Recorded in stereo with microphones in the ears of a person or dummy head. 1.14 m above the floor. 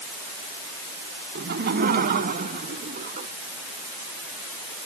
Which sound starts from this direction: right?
Laughter, at 1.4 s.